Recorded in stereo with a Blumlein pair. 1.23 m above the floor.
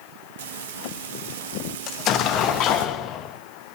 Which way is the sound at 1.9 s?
35° left.